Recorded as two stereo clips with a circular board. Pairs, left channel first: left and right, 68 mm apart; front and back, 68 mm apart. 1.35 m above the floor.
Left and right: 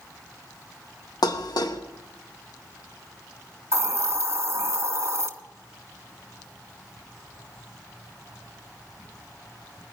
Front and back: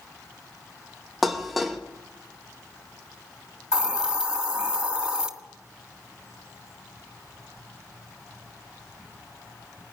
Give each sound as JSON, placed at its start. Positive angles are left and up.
{"t": 1.2, "sound": "dishes clattering", "azimuth_deg": 90, "distance_m": 1.0}
{"t": 3.7, "sound": "a hiss", "azimuth_deg": -105, "distance_m": 1.4}